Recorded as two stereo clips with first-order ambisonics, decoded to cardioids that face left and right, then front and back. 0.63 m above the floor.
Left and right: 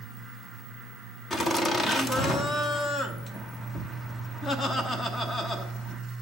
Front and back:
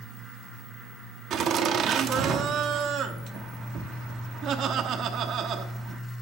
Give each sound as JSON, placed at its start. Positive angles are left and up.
{"t": 1.3, "sound": "laughter", "azimuth_deg": 155, "distance_m": 0.8}